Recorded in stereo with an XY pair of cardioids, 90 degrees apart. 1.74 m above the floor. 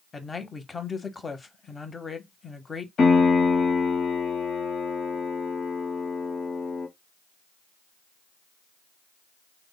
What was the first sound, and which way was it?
A man speaking, 30° left.